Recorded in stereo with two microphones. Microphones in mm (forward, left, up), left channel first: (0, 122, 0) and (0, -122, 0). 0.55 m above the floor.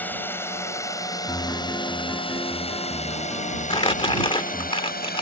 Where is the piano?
10° left (ahead or behind).